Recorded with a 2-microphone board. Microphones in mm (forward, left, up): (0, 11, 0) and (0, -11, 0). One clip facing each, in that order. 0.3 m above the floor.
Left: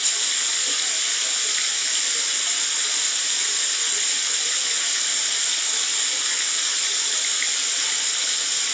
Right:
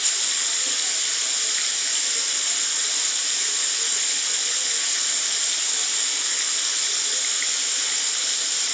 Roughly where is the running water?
Centre.